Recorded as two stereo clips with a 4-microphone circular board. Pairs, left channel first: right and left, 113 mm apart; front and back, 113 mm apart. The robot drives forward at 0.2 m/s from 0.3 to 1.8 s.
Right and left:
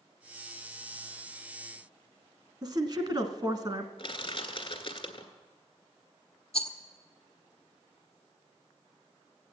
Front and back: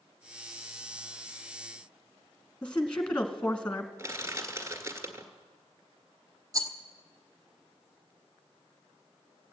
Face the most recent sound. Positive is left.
turn(degrees=-120)